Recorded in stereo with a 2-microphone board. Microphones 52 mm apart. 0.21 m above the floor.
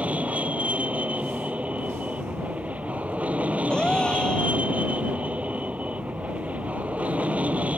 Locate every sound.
0.0 s an aircraft: 25° right (ahead or behind)
3.7 s a gasp: 15° left (ahead or behind)